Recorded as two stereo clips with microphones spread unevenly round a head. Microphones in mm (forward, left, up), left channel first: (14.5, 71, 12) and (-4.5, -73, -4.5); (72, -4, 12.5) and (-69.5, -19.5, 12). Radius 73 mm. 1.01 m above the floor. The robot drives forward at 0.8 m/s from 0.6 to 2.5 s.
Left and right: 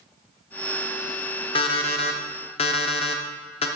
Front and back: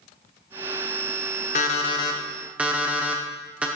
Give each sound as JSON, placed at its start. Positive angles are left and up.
{"t": 1.6, "sound": "an alarm clock", "azimuth_deg": 40, "distance_m": 0.9}